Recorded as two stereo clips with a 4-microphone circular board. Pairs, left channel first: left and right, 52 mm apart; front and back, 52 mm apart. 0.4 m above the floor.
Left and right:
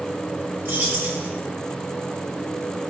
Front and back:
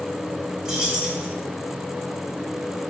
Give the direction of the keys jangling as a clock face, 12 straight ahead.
4 o'clock.